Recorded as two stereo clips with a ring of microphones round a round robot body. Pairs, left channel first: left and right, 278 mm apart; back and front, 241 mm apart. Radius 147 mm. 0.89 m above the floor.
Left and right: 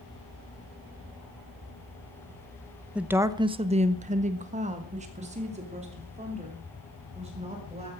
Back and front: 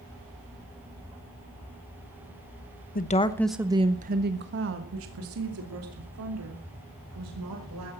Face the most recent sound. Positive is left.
turn(degrees=-20)